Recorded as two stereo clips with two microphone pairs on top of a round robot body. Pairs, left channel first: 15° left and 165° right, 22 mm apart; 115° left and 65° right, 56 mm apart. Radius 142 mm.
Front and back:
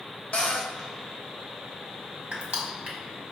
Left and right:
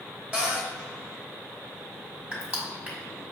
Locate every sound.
0.3 s a cupboard door: straight ahead, 0.8 m
2.3 s crushing: 120° right, 1.6 m